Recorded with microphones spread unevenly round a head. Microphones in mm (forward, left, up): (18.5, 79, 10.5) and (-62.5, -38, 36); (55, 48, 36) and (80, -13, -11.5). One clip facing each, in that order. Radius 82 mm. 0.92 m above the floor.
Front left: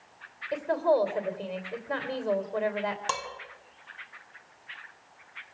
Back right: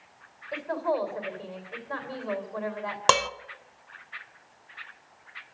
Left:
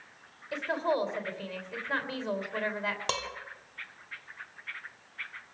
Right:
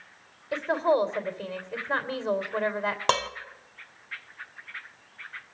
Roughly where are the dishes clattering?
Behind right.